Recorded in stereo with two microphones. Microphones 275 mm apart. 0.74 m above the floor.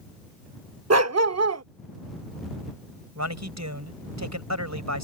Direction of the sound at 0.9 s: 65° right (ahead or behind).